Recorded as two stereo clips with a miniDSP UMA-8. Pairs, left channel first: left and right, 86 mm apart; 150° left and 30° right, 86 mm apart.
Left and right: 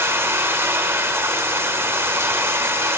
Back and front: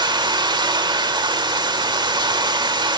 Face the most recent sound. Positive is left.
turn(degrees=-30)